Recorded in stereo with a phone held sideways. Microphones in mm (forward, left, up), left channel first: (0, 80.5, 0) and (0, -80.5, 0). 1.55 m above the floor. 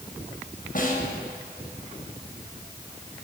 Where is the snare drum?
60° left (ahead or behind), 6.5 m.